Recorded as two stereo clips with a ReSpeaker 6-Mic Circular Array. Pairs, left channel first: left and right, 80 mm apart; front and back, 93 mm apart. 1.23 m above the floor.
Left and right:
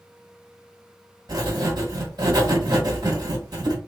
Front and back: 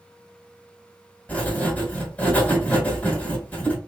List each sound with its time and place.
1.3 s writing: 70° right, 1.7 m